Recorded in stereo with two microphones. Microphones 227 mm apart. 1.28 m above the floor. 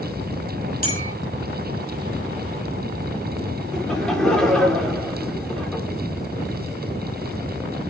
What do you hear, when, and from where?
0.8 s a clink: 40° left (ahead or behind), 6.5 m
3.7 s laughter: centre (ahead or behind), 3 m